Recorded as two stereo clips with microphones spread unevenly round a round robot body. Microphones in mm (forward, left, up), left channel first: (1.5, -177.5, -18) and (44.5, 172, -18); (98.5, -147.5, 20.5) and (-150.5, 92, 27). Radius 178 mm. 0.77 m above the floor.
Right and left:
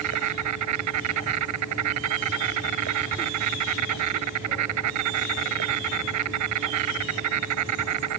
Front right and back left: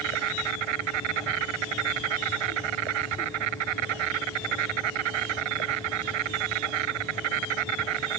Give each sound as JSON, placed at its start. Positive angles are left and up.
{"t": 0.0, "sound": "an insect", "azimuth_deg": 130}